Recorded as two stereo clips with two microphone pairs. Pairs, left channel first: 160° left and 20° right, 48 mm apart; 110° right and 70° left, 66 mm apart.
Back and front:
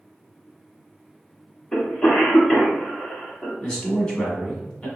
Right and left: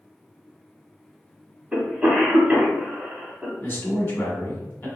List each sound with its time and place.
1.7 s a cough: 115° left, 1.1 m
3.6 s a man speaking: 135° right, 1.2 m